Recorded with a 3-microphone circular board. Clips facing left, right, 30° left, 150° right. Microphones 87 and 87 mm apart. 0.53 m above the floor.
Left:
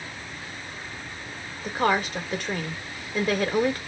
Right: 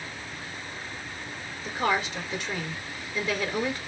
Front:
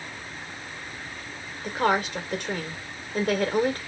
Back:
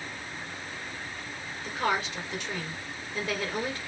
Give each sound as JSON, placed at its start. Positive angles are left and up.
{"t": 1.6, "sound": "a woman speaking", "azimuth_deg": 55, "distance_m": 2.5}